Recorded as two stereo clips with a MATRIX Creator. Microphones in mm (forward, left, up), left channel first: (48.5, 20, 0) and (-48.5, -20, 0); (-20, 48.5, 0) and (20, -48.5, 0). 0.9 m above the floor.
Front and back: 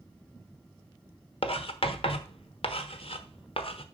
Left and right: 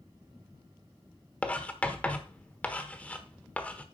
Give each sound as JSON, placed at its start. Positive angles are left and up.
{"t": 1.4, "sound": "writing", "azimuth_deg": 35, "distance_m": 1.1}